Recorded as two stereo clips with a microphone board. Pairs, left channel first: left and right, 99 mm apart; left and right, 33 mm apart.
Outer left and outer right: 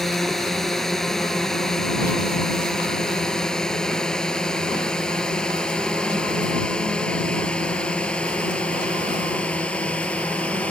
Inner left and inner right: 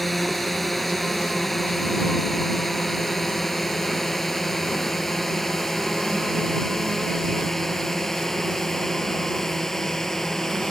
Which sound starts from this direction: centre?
A drone, at 0.0 s.